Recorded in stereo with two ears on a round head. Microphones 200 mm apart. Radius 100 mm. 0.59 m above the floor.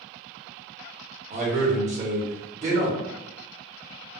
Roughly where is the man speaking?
Right.